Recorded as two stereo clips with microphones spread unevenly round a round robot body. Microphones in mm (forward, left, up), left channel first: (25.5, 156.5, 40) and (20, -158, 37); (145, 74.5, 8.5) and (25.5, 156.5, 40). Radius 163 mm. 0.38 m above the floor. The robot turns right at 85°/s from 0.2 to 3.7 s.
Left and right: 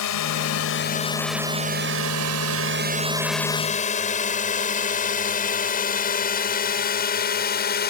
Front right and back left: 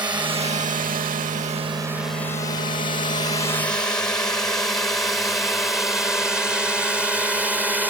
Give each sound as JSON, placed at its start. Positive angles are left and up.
{"t": 0.0, "sound": "a drone", "azimuth_deg": 80}